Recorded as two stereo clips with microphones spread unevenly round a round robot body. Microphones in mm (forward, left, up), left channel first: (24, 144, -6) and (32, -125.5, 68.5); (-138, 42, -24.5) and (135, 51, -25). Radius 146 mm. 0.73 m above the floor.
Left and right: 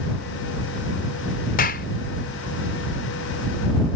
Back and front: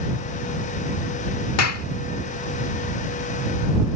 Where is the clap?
150° left.